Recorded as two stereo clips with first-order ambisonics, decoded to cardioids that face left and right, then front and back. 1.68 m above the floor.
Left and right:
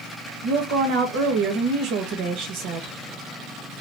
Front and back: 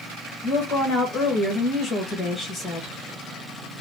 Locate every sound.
0.4 s a woman speaking: 70° right, 1.2 m